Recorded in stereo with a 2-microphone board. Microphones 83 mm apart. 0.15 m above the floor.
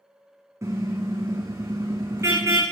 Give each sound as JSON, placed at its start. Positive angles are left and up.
{"t": 0.6, "sound": "a car horn", "side_deg": -35, "distance_m": 4.0}